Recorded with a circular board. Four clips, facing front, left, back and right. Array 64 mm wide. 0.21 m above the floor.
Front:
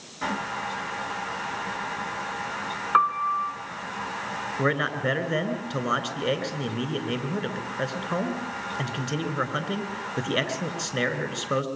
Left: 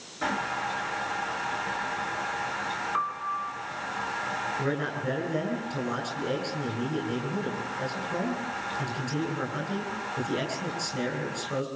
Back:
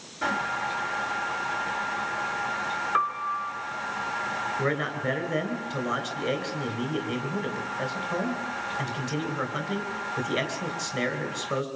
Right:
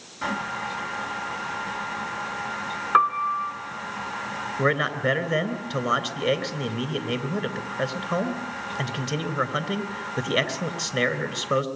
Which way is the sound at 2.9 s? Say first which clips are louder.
Right 13 dB, front 7 dB; 60° right.